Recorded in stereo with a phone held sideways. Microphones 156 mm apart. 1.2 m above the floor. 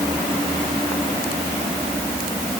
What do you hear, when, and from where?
Only background noise.